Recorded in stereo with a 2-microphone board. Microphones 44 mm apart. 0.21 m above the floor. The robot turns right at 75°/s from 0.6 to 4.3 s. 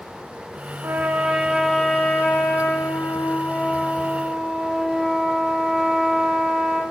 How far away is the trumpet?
About 2.5 m.